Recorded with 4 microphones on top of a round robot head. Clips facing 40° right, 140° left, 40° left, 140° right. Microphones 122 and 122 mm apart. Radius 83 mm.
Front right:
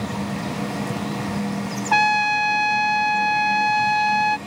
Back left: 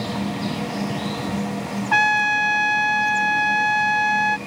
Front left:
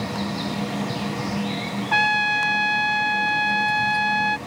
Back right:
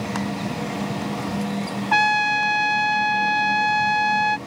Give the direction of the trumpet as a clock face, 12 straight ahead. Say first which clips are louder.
Front right 2 dB, back right 3 dB; 3 o'clock.